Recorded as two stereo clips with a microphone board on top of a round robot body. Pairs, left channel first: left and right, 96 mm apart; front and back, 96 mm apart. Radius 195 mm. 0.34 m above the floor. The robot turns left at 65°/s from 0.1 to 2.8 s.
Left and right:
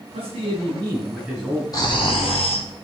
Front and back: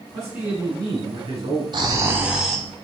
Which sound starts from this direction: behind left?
Snoring, at 1.7 s.